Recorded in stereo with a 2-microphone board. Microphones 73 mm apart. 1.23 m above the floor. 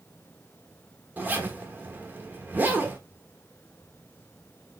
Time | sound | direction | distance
1.2 | a zipper | 25° right (ahead or behind) | 1.0 m